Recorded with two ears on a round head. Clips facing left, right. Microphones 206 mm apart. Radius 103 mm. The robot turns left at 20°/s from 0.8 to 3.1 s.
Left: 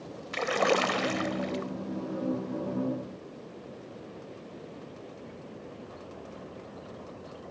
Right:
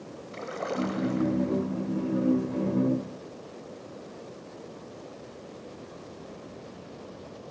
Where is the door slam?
No door slam in this recording.